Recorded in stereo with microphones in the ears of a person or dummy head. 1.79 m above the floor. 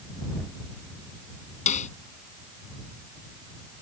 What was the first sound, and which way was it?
A snare drum, 40° left (ahead or behind).